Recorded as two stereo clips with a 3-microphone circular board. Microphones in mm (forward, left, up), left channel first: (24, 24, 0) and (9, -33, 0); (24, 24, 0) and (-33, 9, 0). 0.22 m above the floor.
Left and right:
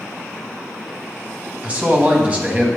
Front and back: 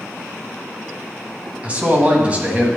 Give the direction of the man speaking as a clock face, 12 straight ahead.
4 o'clock.